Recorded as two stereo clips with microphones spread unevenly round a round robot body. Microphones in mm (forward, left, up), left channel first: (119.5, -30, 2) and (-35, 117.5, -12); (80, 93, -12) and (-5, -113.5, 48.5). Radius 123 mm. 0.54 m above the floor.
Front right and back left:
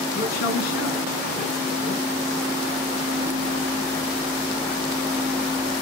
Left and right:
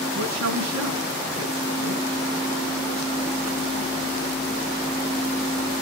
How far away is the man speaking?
About 4.5 m.